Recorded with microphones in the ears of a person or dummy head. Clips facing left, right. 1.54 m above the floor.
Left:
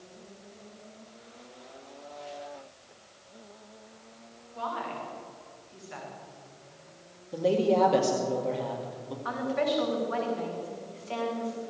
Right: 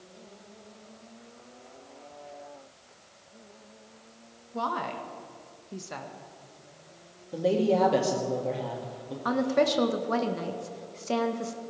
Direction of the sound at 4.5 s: 60° right (ahead or behind).